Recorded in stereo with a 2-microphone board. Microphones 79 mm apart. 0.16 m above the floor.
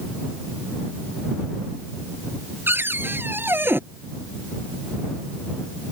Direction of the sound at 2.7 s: 30° right (ahead or behind).